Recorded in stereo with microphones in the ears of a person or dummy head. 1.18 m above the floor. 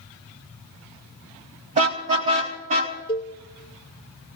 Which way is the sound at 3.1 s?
25° left (ahead or behind).